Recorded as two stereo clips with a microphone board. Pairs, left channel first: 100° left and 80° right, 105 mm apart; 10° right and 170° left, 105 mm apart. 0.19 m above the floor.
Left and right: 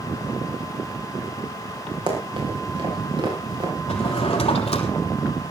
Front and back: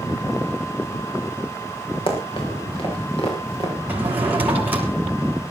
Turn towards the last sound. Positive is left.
turn(degrees=95)